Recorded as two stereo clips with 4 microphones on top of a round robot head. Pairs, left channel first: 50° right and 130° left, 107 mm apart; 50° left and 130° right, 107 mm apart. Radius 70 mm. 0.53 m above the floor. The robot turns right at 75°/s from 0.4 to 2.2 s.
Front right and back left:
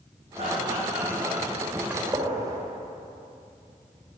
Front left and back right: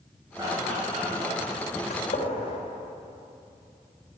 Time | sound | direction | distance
0.4 | laughter | 165° left | 5.5 m
1.9 | a gunshot | 50° left | 2.5 m